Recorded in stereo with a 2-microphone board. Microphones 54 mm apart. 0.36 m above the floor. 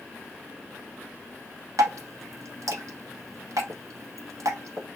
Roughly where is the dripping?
Right.